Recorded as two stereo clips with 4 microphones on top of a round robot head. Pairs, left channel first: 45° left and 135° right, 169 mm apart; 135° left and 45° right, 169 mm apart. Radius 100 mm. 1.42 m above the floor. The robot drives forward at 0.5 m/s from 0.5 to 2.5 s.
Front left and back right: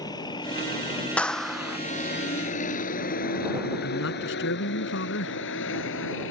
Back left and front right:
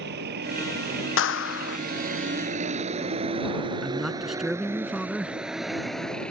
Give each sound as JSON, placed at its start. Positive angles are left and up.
{"t": 0.0, "sound": "a vehicle", "azimuth_deg": -20}
{"t": 1.2, "sound": "a clap", "azimuth_deg": 130}
{"t": 3.8, "sound": "a man speaking", "azimuth_deg": 40}